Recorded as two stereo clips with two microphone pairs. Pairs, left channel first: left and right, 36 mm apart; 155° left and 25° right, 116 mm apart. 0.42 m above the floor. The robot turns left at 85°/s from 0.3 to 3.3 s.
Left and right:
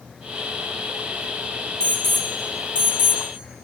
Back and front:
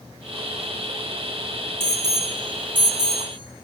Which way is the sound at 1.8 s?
40° left.